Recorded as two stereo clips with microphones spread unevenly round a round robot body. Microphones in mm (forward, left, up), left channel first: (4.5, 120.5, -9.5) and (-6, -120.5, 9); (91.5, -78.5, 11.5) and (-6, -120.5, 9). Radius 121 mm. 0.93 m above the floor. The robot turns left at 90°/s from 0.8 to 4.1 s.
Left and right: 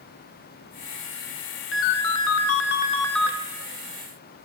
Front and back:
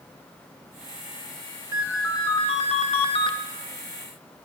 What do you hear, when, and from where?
1.7 s a ringtone: 130° left, 0.8 m; by 3.4 s 20° right, 0.8 m